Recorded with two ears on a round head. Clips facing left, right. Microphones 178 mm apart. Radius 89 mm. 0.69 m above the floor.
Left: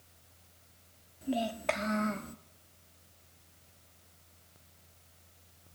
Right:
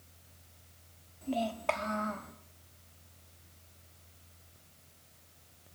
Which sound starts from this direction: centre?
A child speaking, at 1.2 s.